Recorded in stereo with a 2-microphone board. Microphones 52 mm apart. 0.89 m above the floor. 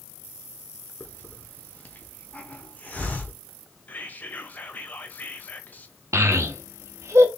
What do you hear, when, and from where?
1.0 s a hiss: 35° left (ahead or behind), 0.9 m
3.9 s whispering: 35° left (ahead or behind), 0.9 m
6.1 s a child speaking: 65° right (ahead or behind), 1.0 m